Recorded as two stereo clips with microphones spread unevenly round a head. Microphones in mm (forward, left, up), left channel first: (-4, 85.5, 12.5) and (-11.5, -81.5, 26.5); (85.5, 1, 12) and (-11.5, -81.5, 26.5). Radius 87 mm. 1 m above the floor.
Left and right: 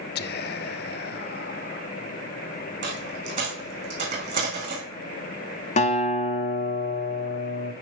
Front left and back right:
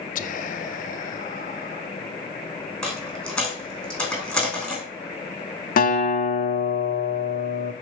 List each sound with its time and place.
0.1 s whispering: 65° left, 0.7 m
2.8 s a dropped coin: 45° right, 4 m
5.8 s a guitar: 35° left, 1.4 m